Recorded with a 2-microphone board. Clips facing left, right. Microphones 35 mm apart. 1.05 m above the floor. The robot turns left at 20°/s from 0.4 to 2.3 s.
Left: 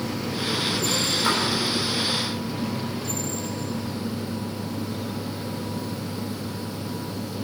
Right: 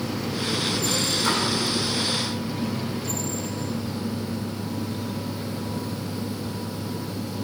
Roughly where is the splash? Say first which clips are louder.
Left 1 dB; centre.